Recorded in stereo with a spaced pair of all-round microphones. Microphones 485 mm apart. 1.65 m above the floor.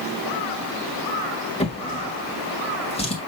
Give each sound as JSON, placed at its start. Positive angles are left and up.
{"t": 1.6, "sound": "a drawer", "side_deg": 10, "distance_m": 1.4}